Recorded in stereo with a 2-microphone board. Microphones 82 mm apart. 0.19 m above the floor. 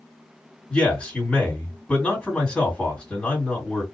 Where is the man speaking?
15° left (ahead or behind), 1.6 m.